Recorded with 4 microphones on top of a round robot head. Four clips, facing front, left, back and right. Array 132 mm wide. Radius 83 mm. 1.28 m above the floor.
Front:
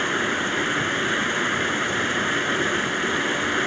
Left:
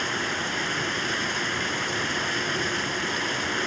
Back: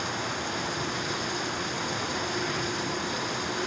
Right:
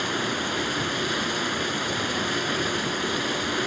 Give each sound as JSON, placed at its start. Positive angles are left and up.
{"t": 0.0, "sound": "running water", "azimuth_deg": -25}